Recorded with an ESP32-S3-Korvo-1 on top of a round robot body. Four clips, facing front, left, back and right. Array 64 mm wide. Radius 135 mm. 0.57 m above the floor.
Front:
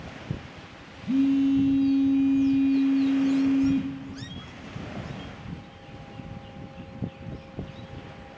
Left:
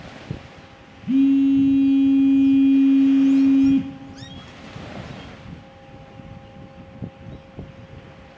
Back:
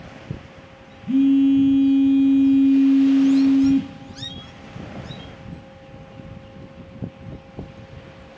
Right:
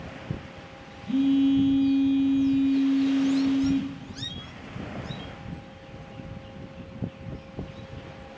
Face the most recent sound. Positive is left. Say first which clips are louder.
# left 5 dB, back 6 dB
turn(degrees=105)